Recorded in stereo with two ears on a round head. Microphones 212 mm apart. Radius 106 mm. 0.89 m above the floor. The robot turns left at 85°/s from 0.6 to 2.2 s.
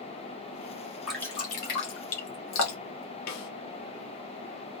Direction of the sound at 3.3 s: 75° left (ahead or behind).